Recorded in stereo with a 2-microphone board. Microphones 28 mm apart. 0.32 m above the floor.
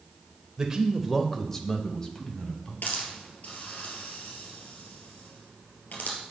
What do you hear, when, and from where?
0.6 s a man speaking: 25° right (ahead or behind), 1.0 m; by 2.7 s 35° left (ahead or behind), 2.5 m
2.8 s a hiss: 75° left (ahead or behind), 2.5 m